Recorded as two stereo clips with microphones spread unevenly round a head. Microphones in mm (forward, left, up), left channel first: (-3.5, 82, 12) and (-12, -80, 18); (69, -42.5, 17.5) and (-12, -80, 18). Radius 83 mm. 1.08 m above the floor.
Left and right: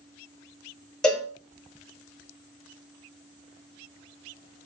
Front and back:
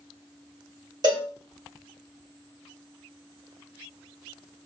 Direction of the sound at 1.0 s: 175° left.